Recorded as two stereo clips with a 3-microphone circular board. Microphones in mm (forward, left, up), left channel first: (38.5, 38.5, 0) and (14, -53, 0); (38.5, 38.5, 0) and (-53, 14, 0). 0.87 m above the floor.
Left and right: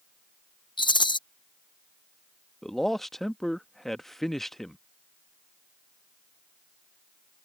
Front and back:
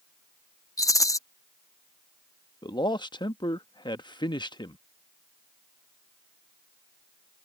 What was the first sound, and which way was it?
A rattle, 65° left.